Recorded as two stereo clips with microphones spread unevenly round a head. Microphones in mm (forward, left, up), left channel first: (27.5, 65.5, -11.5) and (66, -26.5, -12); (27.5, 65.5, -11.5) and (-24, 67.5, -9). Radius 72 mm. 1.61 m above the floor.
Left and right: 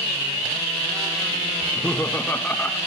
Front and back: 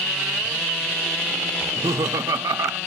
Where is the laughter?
165° right, 1.5 m.